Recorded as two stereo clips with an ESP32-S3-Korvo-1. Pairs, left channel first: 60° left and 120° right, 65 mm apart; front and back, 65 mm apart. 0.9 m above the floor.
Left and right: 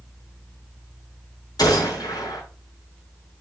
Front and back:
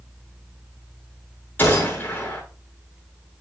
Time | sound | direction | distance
1.6 | a gunshot | 60° left | 6 m